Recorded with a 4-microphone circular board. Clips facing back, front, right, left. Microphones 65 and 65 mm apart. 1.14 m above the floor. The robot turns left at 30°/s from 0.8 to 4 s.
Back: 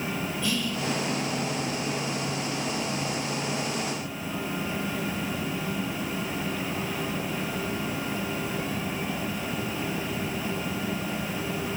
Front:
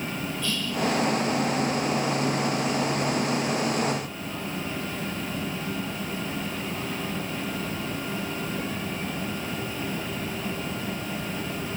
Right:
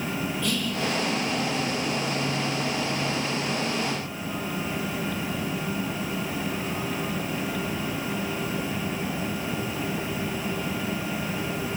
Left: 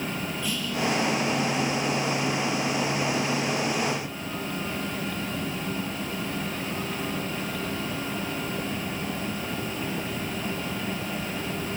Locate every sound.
0.4 s whispering: 105° right, 6 m